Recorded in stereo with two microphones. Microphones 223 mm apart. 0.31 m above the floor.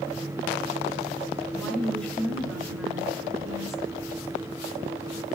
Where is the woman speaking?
5° left (ahead or behind), 4.5 m; by 3.8 s centre (ahead or behind), 3.5 m.